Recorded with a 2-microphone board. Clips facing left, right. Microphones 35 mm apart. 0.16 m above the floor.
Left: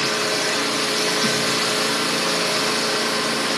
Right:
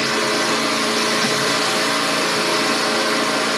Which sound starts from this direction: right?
An engine running, at 0.0 s.